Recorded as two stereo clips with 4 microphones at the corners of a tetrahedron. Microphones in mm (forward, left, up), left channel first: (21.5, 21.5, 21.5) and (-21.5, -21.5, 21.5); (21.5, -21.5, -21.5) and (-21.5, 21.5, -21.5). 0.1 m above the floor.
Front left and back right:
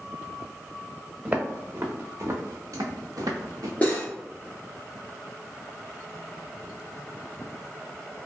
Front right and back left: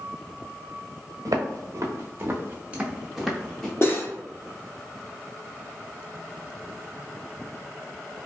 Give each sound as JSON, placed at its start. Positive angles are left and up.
{"t": 1.2, "sound": "footsteps", "azimuth_deg": 155, "distance_m": 1.0}
{"t": 3.8, "sound": "cutlery clinking", "azimuth_deg": -15, "distance_m": 1.1}